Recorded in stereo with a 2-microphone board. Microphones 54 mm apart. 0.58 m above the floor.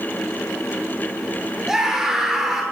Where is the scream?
10° right (ahead or behind), 9 m.